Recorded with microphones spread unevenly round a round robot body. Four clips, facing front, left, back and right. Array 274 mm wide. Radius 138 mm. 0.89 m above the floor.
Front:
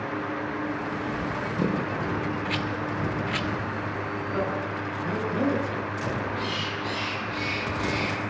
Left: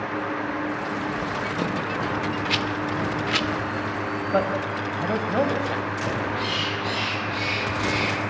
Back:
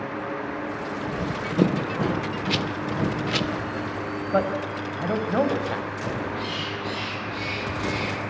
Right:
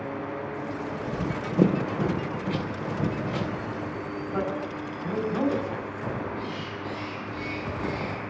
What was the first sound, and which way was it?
Running footsteps, 135° right.